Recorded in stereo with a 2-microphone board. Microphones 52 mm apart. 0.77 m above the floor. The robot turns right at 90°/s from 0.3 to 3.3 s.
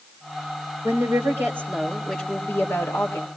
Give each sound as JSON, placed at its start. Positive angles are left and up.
{"t": 0.8, "sound": "a woman speaking", "azimuth_deg": -110, "distance_m": 4.0}